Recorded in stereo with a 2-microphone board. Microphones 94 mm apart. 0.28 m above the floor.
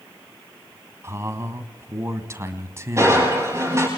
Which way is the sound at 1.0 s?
30° right (ahead or behind).